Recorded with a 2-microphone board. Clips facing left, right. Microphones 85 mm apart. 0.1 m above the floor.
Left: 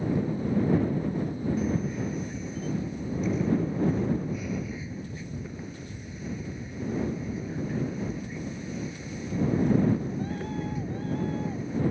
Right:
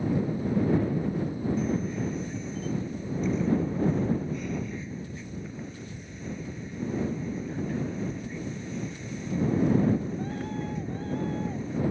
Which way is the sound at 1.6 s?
5° left (ahead or behind).